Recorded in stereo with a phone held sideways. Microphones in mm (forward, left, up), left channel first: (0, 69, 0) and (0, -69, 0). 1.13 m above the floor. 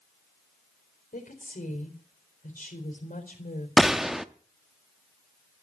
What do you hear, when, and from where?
1.1 s a woman speaking: 85° left, 4 m
3.8 s a gunshot: centre (ahead or behind), 0.6 m